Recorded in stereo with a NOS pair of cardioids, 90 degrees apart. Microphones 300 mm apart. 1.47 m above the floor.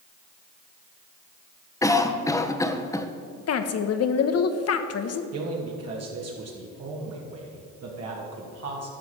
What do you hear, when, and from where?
1.8 s a cough: 10° left, 1.4 m
3.5 s a woman speaking: 55° left, 1.2 m
5.3 s a man speaking: 55° right, 2.5 m